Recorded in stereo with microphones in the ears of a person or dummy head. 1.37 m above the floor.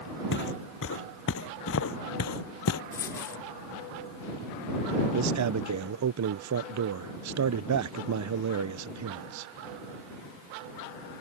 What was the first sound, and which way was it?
Footsteps, 55° left (ahead or behind).